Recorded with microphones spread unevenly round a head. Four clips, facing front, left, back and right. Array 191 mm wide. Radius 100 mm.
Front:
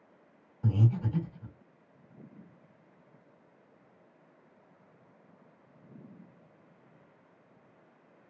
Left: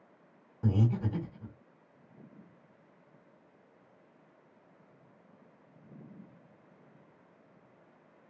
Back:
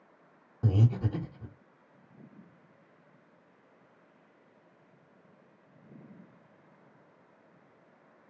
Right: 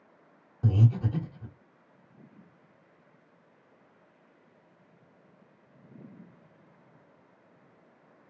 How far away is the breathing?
About 1.6 m.